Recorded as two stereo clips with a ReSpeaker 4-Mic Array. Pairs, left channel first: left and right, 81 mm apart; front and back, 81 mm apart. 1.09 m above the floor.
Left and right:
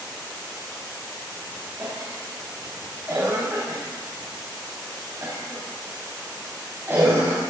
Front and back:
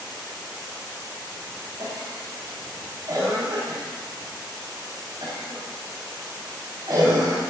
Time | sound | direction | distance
1.8 | a cough | 150° right | 9 m